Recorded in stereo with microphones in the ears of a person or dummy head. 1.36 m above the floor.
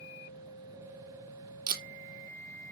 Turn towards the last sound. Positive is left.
turn(degrees=-30)  # may be behind; listen again after turning